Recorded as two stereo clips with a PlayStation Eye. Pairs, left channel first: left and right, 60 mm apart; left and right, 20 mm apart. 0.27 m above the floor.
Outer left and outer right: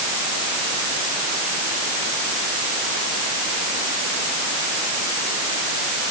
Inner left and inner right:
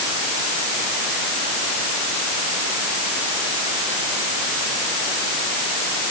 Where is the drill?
No drill in this recording.